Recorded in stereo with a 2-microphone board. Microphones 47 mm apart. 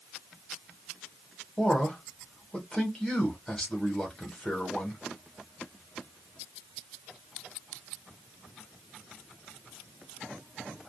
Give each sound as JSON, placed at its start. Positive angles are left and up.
{"t": 1.6, "sound": "a man speaking", "side_deg": 10, "distance_m": 1.3}